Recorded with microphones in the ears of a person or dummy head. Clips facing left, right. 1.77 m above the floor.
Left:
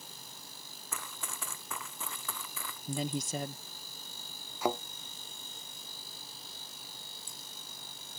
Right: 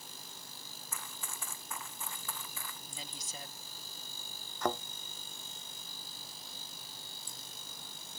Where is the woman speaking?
55° left (ahead or behind).